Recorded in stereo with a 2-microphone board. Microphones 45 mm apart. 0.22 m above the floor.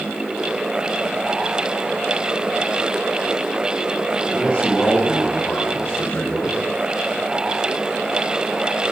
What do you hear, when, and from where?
4.3 s a man speaking: 30° left (ahead or behind), 10 m